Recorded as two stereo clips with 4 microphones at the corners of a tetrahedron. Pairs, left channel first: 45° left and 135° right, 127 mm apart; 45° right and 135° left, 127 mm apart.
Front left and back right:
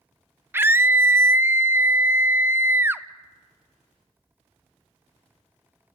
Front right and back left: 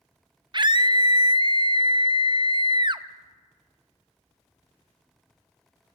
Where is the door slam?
No door slam in this recording.